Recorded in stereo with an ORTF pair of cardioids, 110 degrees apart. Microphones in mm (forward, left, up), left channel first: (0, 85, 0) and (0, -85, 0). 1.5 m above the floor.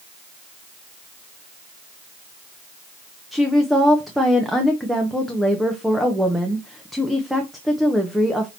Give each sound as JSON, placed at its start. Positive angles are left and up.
{"t": 3.3, "sound": "a woman speaking", "azimuth_deg": 0, "distance_m": 0.8}